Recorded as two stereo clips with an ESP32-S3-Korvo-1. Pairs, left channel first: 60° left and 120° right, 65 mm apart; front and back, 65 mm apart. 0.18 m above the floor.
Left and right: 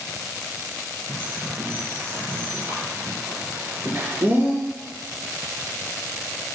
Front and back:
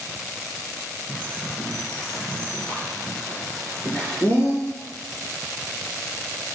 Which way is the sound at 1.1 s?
75° right.